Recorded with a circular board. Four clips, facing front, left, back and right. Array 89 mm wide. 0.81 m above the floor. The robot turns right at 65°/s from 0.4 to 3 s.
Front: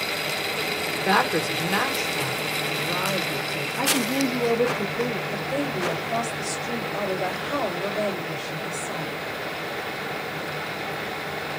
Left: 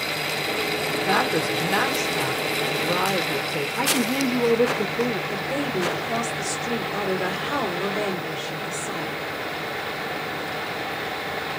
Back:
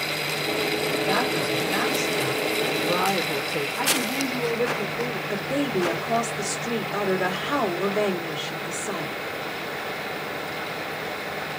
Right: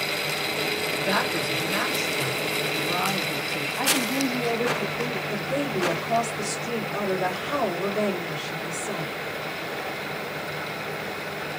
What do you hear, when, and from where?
0.9 s a woman speaking: 5° left, 2 m; by 3.7 s 135° left, 2 m
3.8 s a woman speaking: 85° left, 2.5 m
5.3 s a woman speaking: 155° left, 2 m